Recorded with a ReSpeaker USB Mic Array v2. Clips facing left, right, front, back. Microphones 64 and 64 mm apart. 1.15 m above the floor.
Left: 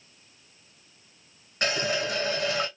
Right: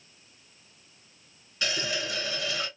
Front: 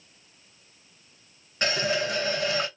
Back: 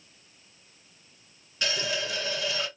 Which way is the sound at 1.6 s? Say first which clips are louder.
Left 4 dB, front 5 dB; 50° left.